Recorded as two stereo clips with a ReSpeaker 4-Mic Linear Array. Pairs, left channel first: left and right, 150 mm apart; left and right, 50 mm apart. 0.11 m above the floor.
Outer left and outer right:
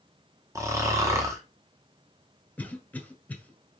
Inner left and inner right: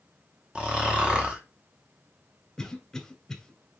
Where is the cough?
10° left (ahead or behind), 1.1 m.